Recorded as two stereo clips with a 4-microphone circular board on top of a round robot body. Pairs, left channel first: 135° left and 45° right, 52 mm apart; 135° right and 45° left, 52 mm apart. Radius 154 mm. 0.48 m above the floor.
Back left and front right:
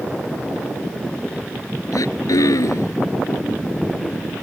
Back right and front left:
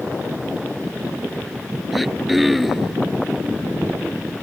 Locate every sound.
1.9 s throat clearing: 135° left